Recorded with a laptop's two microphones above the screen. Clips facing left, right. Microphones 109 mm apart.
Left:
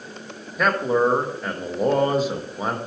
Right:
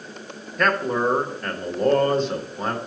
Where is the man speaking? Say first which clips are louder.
Left 2 dB; 5° left (ahead or behind), 0.8 m.